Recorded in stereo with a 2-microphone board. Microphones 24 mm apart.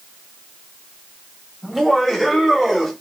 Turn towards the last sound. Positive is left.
turn(degrees=10)  # may be behind; listen again after turning